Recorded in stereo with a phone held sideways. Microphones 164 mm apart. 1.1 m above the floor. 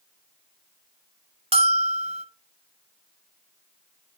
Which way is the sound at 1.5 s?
35° right (ahead or behind).